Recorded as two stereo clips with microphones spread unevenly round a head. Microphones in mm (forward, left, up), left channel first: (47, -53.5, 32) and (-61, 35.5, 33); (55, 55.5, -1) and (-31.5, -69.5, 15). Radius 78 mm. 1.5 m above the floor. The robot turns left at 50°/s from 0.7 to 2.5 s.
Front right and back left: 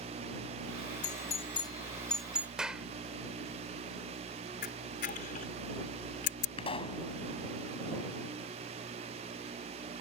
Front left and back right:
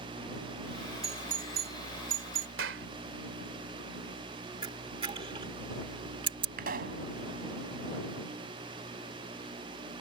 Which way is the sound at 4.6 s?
70° right.